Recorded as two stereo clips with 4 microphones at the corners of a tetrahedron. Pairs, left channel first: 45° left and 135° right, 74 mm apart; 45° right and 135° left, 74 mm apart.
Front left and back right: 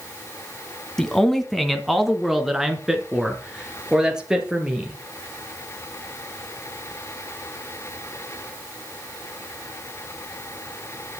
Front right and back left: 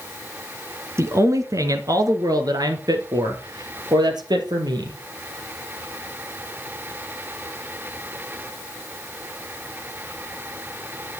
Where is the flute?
I don't hear a flute.